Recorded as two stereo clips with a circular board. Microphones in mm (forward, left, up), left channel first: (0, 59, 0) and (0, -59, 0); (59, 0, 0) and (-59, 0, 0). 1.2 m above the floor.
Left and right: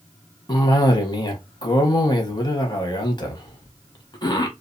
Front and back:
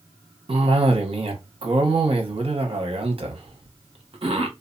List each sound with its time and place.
0.5 s a cough: 140° left, 0.9 m